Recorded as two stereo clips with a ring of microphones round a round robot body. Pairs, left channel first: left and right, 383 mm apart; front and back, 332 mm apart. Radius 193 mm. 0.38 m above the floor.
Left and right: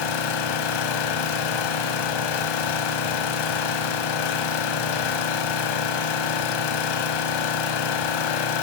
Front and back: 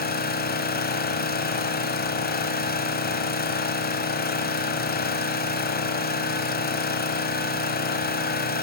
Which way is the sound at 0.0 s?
65° left.